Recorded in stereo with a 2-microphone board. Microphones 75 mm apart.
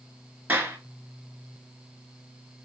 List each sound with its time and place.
0.5 s a clap: 25° right (ahead or behind), 1.0 m